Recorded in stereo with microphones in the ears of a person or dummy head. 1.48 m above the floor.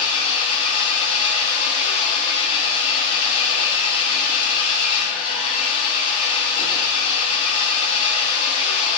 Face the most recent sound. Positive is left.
turn(degrees=40)  # may be behind; listen again after turning